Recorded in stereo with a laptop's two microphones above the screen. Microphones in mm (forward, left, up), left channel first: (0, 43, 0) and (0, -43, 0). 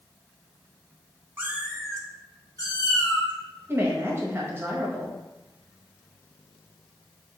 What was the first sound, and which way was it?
A cat meowing, 25° right (ahead or behind).